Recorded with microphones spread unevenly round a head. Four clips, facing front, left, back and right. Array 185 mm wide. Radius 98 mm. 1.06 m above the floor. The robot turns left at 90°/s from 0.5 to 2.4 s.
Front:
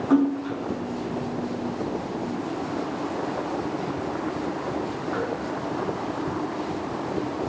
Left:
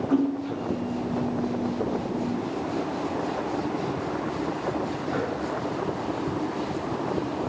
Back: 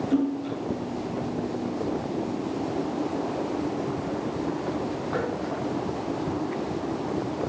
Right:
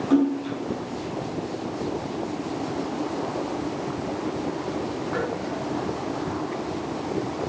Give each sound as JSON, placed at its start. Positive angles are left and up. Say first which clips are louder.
{"t": 0.1, "sound": "a splash", "louder": "right 4 dB, front 6 dB", "azimuth_deg": -15, "distance_m": 6.5}